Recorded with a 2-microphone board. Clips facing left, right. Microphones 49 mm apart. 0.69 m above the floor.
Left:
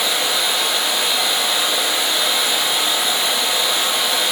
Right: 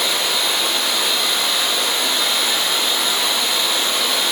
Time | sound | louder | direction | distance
0.0 | running water | even | 15° left (ahead or behind) | 3.5 m